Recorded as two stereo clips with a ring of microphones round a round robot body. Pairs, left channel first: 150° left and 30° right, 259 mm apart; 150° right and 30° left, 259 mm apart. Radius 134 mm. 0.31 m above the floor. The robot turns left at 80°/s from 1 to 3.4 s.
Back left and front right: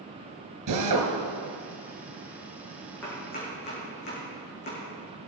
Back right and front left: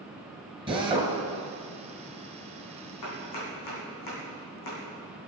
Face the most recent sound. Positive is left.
turn(degrees=-155)